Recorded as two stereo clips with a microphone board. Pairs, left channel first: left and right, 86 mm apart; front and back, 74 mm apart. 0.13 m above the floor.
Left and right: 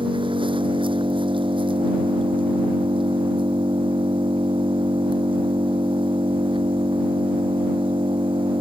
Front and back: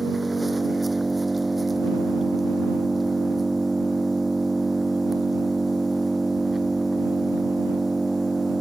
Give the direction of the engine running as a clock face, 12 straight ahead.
3 o'clock.